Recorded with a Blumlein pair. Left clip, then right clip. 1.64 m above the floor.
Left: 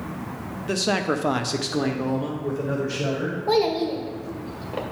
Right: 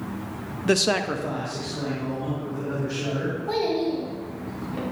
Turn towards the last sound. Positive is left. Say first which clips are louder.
# left 4 dB
turn(degrees=65)